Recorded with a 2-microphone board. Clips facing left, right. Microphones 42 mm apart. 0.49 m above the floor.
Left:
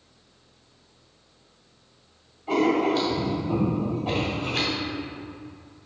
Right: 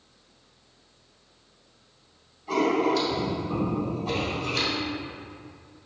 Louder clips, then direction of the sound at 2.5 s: Left 1 dB; 40° left (ahead or behind).